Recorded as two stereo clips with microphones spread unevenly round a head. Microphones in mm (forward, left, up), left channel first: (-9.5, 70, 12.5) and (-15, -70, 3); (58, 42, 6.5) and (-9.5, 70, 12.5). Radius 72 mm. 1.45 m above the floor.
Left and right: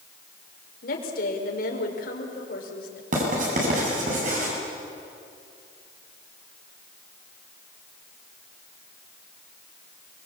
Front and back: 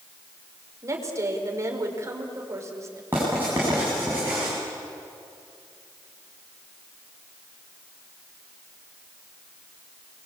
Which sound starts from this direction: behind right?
Writing, at 3.1 s.